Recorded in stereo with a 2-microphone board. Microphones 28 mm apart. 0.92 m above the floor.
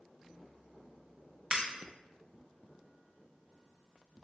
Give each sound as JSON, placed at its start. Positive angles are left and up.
{"t": 1.5, "sound": "breaking glass", "side_deg": -30, "distance_m": 0.8}